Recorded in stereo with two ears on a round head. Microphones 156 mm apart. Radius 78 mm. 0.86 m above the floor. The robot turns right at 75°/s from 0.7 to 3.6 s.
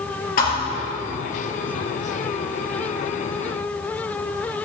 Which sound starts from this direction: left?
A thud, at 0.4 s.